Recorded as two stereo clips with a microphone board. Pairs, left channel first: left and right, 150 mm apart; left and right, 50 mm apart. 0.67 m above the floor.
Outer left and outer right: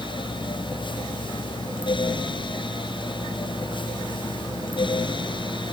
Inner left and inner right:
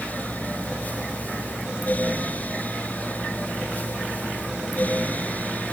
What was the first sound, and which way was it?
Only background noise.